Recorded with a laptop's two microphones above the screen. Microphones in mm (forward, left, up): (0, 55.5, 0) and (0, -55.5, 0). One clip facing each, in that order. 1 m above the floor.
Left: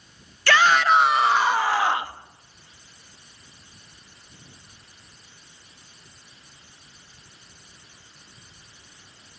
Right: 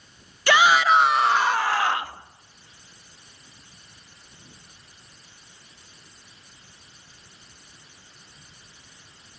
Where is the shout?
15° right (ahead or behind), 0.6 m; by 2.2 s 15° left (ahead or behind), 1.3 m.